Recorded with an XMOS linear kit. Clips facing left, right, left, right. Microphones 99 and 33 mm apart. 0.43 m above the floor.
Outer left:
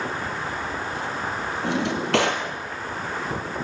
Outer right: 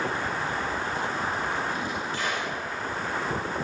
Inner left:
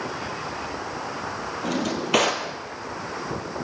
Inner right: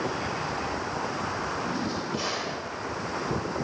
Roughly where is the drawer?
Left.